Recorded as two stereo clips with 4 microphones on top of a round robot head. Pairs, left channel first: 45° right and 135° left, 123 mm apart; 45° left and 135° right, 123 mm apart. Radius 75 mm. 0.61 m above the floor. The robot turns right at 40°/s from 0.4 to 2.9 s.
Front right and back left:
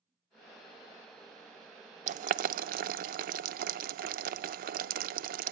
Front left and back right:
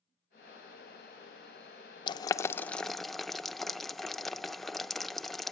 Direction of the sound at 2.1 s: 100° left.